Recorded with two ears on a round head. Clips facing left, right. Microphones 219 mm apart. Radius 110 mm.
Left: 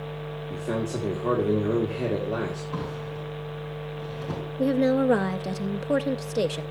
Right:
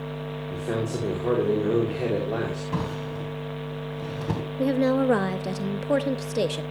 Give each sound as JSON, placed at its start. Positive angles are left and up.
{"t": 0.5, "sound": "a man speaking", "side_deg": 0, "distance_m": 2.5}
{"t": 2.7, "sound": "a drawer", "side_deg": -75, "distance_m": 3.0}
{"t": 4.6, "sound": "a woman speaking", "side_deg": 0, "distance_m": 0.5}